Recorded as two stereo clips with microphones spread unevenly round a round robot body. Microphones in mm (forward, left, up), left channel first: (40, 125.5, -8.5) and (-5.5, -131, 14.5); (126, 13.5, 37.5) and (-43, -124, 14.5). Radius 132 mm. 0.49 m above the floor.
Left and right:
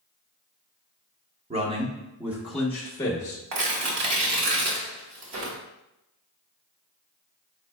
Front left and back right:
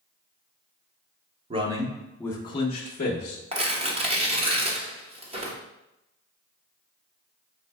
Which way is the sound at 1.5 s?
150° right.